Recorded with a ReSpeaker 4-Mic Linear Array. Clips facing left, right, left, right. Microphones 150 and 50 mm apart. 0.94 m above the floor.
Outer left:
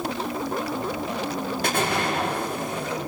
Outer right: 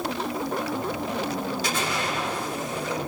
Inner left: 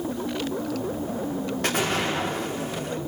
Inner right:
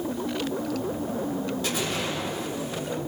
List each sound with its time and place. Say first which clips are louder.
1.6 s an explosion: outer left 4 dB, inner left 4 dB; 55° left (ahead or behind), 2 m